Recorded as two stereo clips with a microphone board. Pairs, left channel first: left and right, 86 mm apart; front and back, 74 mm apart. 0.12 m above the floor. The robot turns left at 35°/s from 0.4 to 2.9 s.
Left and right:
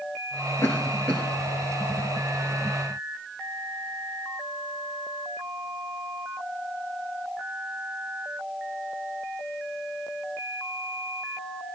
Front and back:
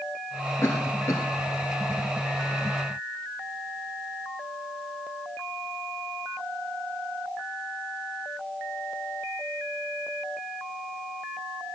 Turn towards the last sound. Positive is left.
turn(degrees=-40)